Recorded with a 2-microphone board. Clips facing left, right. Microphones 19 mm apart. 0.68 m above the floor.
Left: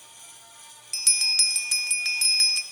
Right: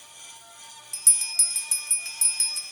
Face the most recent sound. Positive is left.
turn(degrees=40)  # may be behind; listen again after turning